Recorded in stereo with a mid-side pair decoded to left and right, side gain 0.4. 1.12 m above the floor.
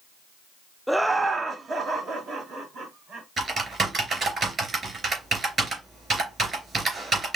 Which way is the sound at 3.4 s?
40° right.